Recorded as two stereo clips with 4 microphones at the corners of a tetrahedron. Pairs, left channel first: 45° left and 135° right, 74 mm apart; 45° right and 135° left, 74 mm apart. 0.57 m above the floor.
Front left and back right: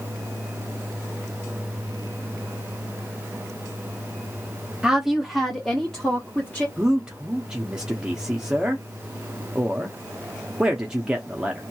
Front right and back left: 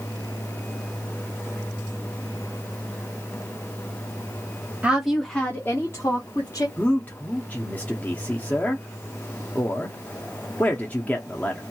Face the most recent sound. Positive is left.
turn(degrees=-70)